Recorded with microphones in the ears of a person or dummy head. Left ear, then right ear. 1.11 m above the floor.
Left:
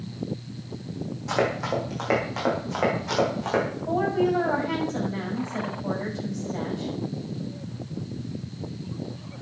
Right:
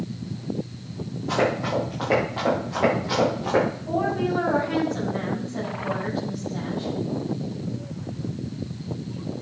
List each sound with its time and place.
1.3 s running footsteps: 70° left (ahead or behind), 5 m; by 3.8 s 45° left (ahead or behind), 6 m
3.9 s a woman speaking: 60° left (ahead or behind), 6 m